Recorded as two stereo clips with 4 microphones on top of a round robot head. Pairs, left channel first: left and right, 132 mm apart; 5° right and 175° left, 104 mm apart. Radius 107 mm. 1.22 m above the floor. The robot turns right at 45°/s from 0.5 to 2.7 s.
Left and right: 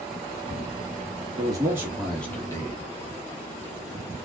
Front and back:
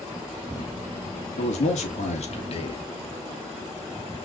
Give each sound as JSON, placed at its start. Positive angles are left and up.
{"t": 1.4, "sound": "a man speaking", "azimuth_deg": -30, "distance_m": 1.8}